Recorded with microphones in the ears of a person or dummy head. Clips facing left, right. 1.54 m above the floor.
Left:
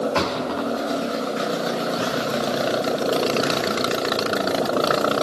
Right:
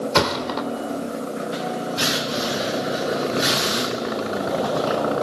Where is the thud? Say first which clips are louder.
Right 1 dB; 70° right (ahead or behind), 2.5 m.